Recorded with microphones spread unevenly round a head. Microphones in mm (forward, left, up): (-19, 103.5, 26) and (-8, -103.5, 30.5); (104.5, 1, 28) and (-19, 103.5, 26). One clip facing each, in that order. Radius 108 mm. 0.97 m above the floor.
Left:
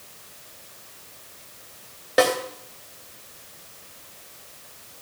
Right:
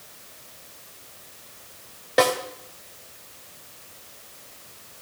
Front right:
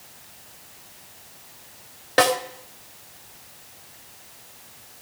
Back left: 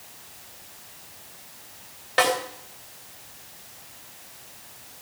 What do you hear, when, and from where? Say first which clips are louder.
2.2 s a snare drum: left 1 dB, front right 3 dB; 5° left, 2.5 m